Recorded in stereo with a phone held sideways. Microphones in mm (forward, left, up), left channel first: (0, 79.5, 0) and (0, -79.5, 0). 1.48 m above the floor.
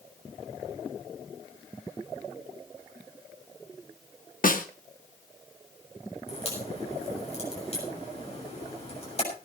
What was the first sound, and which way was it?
A snare drum, 60° left (ahead or behind).